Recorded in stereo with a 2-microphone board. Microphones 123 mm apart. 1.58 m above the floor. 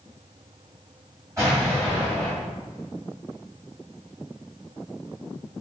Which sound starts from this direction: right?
An explosion, at 1.4 s.